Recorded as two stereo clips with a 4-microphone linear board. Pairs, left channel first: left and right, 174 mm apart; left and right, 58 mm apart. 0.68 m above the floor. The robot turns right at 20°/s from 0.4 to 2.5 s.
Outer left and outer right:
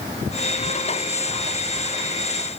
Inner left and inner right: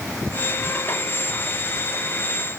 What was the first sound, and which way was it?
Only background noise.